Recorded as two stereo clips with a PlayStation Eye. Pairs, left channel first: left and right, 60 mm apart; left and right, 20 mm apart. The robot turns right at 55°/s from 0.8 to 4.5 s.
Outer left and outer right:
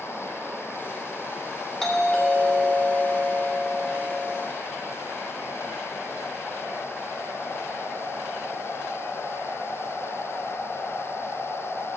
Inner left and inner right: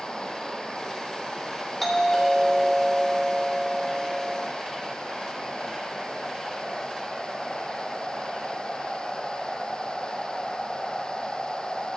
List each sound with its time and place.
1.8 s a doorbell: 10° left (ahead or behind), 1.8 m; by 4.5 s 5° left (ahead or behind), 1.8 m